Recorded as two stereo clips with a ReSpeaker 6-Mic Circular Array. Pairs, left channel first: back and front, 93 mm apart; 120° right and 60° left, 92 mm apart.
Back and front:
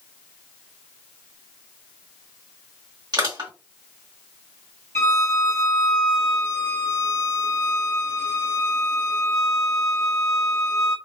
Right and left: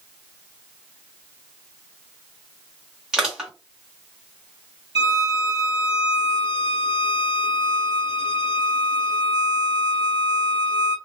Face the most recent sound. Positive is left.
turn(degrees=-120)